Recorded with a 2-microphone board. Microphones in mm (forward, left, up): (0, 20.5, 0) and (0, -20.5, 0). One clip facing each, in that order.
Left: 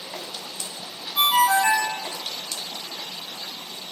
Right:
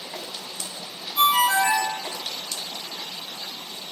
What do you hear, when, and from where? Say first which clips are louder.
1.1 s a ringtone: even; 60° left (ahead or behind), 0.9 m